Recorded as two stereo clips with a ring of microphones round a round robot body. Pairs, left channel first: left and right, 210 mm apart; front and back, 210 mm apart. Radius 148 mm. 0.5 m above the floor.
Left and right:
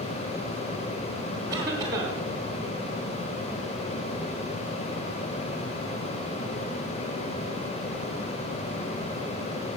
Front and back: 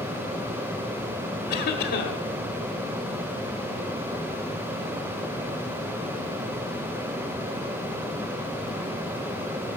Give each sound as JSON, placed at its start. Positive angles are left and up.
{"t": 1.5, "sound": "a cough", "azimuth_deg": -20, "distance_m": 0.9}